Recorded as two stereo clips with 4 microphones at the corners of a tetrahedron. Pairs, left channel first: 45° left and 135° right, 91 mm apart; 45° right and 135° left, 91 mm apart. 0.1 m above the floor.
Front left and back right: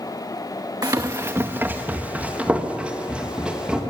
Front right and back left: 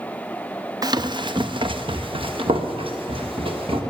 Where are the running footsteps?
Straight behind, 0.7 m; by 3.8 s 145° left, 3 m.